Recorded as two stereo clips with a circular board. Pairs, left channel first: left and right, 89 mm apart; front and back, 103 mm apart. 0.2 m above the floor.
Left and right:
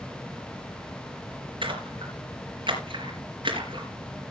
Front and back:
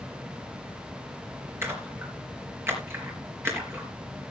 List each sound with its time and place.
1.6 s a splash: 115° right, 4.5 m